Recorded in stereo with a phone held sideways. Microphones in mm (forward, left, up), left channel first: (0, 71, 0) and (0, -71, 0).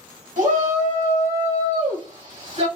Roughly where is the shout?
Right.